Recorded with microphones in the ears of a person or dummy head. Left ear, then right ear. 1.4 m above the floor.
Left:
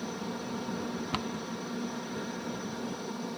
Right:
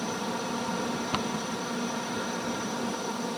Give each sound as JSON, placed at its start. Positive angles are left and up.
{"t": 0.0, "sound": "a helicopter", "side_deg": -30}
{"t": 1.1, "sound": "a cupboard door", "side_deg": -5}